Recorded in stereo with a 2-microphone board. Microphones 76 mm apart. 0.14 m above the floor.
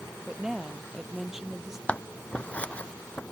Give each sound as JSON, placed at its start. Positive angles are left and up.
{"t": 0.3, "sound": "a woman speaking", "side_deg": -5}
{"t": 1.9, "sound": "scissors", "side_deg": 15}